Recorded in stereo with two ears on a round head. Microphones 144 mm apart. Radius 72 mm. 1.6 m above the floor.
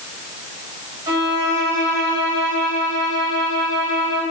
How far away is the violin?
About 4.5 m.